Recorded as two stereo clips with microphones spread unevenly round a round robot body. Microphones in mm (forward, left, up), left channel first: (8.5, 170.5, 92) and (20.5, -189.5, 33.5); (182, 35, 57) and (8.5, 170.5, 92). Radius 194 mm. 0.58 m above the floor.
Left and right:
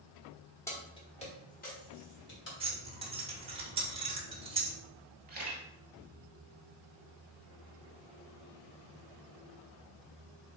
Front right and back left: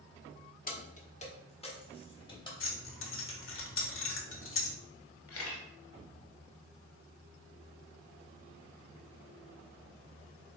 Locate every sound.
0.7 s keys jangling: 5° left, 1.1 m; by 2.5 s 30° left, 2 m
2.6 s keys jangling: 15° right, 1.2 m
5.3 s a camera shutter: 20° right, 1.6 m